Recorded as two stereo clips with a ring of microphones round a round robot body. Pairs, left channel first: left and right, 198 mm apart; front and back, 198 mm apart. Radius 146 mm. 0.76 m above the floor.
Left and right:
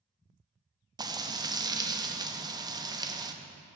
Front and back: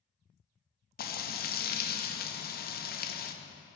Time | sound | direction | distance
1.0 | frying | 25° right | 0.7 m